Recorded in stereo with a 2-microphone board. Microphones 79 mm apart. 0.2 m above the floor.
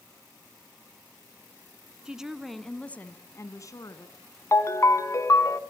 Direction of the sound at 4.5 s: 40° left (ahead or behind).